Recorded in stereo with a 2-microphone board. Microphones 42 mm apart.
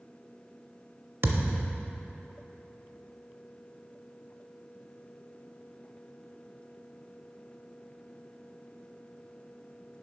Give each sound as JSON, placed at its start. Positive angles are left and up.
{"t": 1.2, "sound": "a thud", "side_deg": -65, "distance_m": 0.6}